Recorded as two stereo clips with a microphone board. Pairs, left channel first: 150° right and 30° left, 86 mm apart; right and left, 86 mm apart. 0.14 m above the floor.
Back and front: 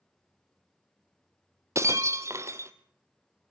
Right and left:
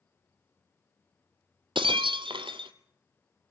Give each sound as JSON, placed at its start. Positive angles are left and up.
{"t": 1.8, "sound": "breaking glass", "azimuth_deg": 85, "distance_m": 1.0}